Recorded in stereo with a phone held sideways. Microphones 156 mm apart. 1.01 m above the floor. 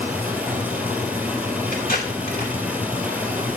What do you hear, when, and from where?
0.0 s running water: 10° right (ahead or behind), 1.7 m
1.7 s tape being pulled: 85° left, 3.5 m